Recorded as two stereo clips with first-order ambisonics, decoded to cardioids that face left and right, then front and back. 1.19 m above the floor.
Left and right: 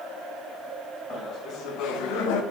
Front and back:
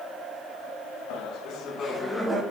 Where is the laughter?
25° left, 1.6 m; by 2.4 s 105° left, 1.3 m.